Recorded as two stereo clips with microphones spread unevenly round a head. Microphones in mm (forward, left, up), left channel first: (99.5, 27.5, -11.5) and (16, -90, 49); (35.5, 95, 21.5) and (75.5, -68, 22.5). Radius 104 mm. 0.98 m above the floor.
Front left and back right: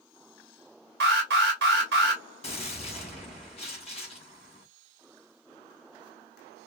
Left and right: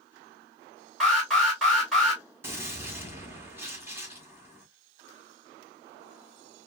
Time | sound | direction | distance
1.0 | an alarm | 165° right | 1.4 m
2.4 | a gunshot | straight ahead | 2 m